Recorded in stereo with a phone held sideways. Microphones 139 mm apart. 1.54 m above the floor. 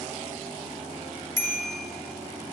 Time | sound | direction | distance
1.4 | a bicycle bell | 25° left (ahead or behind) | 2 m